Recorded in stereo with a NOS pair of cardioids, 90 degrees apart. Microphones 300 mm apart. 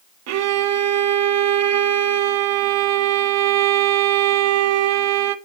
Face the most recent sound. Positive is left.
turn(degrees=-60)